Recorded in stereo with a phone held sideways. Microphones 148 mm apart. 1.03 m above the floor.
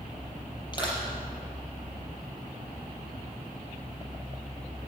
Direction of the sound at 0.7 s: 30° left (ahead or behind).